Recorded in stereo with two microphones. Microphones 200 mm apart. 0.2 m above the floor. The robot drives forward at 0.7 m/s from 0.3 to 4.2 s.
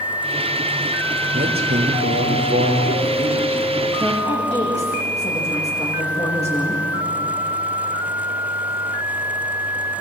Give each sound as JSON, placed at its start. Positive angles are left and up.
{"t": 1.3, "sound": "a man speaking", "side_deg": -55, "distance_m": 4.5}
{"t": 4.0, "sound": "a woman speaking", "side_deg": 30, "distance_m": 10.0}